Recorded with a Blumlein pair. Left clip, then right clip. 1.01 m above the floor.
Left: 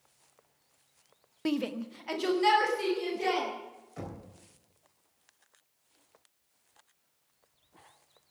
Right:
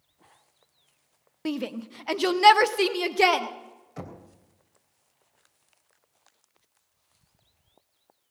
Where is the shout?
Straight ahead, 0.7 m; by 3.5 s 45° right, 1.8 m.